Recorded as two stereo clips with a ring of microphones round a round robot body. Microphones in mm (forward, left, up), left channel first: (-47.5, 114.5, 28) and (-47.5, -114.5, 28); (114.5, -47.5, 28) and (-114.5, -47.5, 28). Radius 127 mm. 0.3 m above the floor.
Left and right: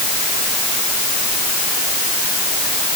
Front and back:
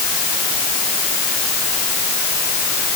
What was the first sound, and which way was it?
Only background noise.